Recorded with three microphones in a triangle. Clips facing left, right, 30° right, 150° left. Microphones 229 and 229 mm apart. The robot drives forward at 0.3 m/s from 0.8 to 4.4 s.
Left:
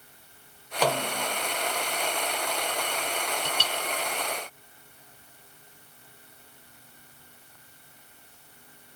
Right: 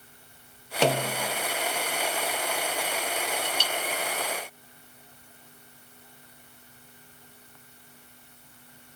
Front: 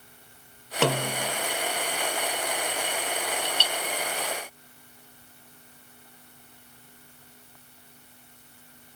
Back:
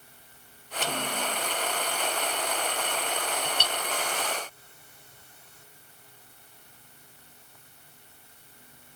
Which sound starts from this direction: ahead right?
A snare drum, at 0.8 s.